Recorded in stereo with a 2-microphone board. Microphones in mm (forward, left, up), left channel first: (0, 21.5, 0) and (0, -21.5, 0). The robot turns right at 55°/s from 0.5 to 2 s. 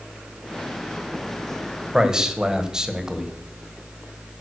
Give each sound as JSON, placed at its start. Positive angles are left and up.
{"t": 1.9, "sound": "a man speaking", "side_deg": -10, "distance_m": 1.6}